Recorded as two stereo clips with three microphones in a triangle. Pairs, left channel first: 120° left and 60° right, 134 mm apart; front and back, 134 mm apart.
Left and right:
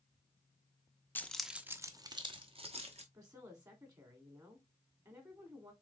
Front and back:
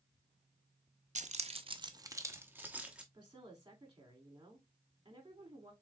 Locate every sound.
1.1 s keys jangling: 165° right, 0.5 m; by 3.0 s 95° right, 1.1 m
3.1 s a woman speaking: 120° right, 2 m